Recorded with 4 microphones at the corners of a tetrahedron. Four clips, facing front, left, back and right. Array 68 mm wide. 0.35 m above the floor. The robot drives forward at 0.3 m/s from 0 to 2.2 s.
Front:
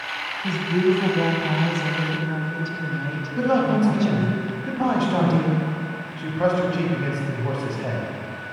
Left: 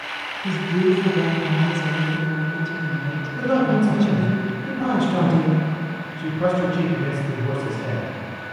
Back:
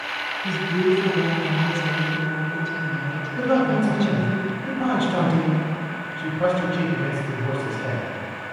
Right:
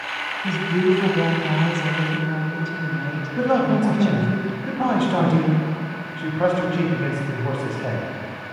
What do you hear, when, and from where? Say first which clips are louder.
0.4 s a woman speaking: even, front 1 dB; 40° right, 1.7 m; by 4.4 s 55° right, 1.4 m
3.4 s a man speaking: even, even; 65° right, 1.9 m